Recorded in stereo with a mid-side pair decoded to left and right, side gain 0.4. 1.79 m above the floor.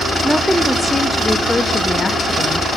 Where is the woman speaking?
5° right, 1.5 m; by 2.7 s 45° left, 1.6 m.